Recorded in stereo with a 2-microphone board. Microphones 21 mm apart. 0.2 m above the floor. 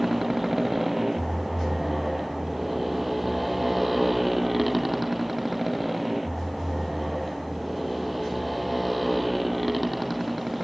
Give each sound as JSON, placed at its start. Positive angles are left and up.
{"t": 0.0, "sound": "a motorcycle", "side_deg": -15}